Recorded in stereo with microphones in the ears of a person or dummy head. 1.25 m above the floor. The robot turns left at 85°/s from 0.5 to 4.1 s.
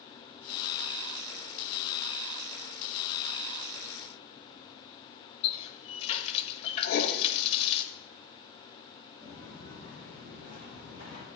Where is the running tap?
35° left (ahead or behind), 0.7 m.